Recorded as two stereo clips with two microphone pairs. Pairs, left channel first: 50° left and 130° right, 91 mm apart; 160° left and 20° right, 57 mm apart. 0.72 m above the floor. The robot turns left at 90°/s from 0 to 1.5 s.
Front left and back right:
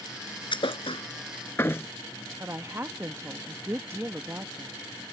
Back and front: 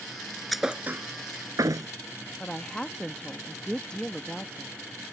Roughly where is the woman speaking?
Behind right.